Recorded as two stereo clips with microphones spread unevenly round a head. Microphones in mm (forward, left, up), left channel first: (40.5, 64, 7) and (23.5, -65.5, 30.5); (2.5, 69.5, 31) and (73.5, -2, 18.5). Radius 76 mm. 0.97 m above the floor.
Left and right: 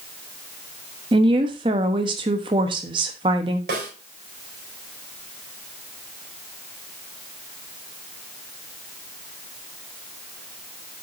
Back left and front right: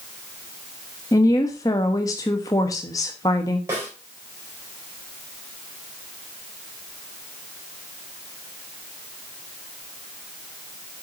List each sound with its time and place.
1.1 s a woman speaking: 160° right, 1.0 m
3.7 s a snare drum: 115° right, 4 m